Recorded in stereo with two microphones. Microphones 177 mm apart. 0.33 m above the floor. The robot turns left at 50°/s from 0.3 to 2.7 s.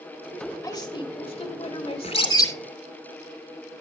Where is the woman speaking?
145° left, 1.3 m; by 2.4 s 55° left, 1.3 m.